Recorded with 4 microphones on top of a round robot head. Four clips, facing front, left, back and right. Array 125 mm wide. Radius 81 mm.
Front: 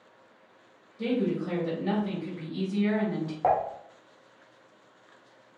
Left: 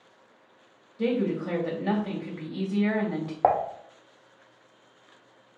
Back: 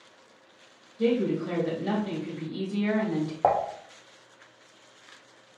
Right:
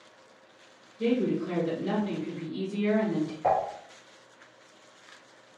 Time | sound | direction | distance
1.0 | a woman speaking | 100° left | 2 m
3.4 | dishes clattering | 115° left | 0.9 m